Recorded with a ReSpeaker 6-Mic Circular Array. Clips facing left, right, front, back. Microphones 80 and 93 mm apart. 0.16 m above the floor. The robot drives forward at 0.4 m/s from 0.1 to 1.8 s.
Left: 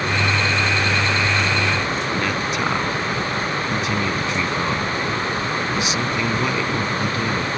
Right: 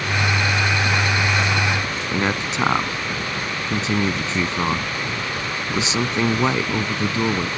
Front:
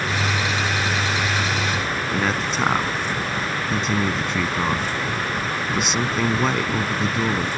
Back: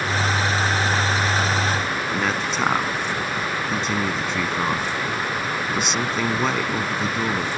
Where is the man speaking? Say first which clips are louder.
Even, front 2 dB; 90° right.